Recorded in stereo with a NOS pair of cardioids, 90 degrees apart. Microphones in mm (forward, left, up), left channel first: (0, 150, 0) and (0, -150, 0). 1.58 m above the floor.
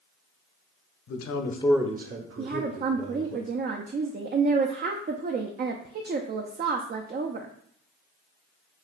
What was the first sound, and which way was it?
A man speaking, 65° left.